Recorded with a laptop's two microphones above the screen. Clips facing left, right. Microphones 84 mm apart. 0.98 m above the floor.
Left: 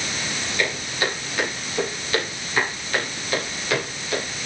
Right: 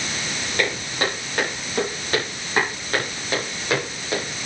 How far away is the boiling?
I don't hear boiling.